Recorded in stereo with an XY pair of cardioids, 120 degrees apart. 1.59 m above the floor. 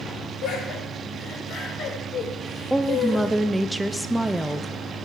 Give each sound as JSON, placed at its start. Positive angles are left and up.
{"t": 0.4, "sound": "laughter", "azimuth_deg": 65, "distance_m": 5.0}
{"t": 2.7, "sound": "a woman speaking", "azimuth_deg": -10, "distance_m": 0.5}